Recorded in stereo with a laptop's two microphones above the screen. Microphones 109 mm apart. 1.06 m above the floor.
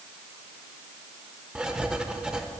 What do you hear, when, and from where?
1.6 s writing: 5° right (ahead or behind), 0.7 m